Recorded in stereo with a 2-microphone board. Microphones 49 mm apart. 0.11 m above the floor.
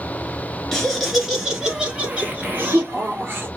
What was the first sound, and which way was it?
Laughter, 10° left (ahead or behind).